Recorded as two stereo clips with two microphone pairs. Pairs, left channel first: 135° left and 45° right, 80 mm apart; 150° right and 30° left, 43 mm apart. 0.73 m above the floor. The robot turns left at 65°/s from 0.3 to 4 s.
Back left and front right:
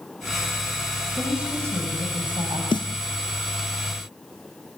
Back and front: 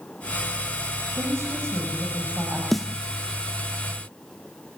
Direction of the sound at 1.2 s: 45° left.